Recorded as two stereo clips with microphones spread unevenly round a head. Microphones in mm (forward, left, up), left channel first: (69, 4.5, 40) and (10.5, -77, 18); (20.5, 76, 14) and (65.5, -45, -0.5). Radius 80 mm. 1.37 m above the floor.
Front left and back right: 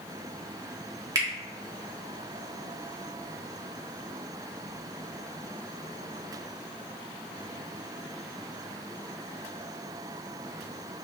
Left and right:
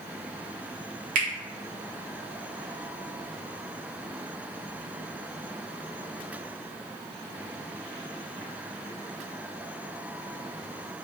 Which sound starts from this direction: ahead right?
A finger snap, at 1.1 s.